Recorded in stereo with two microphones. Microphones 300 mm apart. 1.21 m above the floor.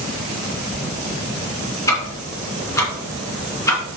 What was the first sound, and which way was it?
Ticking, 10° left (ahead or behind).